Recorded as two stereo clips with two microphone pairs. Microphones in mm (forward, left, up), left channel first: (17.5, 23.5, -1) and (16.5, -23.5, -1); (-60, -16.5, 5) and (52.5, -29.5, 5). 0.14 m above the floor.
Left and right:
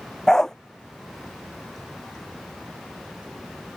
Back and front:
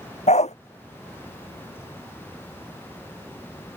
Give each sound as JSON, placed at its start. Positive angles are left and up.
{"t": 0.3, "sound": "a dog barking", "azimuth_deg": 165}